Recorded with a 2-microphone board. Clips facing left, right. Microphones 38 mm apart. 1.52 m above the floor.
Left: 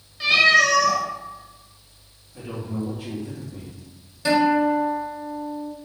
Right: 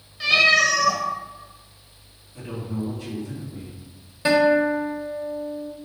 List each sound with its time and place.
0.2 s a cat meowing: 5° left (ahead or behind), 0.8 m
2.3 s a man speaking: 40° left (ahead or behind), 1.8 m
4.2 s a guitar: 25° right (ahead or behind), 0.6 m